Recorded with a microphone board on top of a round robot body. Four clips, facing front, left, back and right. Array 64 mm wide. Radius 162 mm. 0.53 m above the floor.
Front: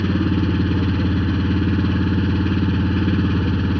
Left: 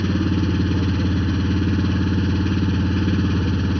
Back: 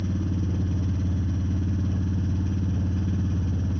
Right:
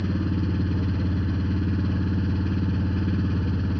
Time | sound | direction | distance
0.0 | an engine running | 15° left | ?